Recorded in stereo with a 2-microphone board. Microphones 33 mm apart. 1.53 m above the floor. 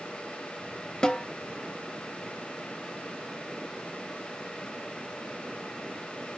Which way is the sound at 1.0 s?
25° left (ahead or behind).